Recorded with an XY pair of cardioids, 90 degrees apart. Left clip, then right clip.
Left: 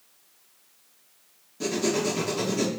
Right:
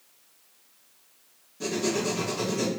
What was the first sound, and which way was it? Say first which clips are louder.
Writing: left 2 dB; 40° left.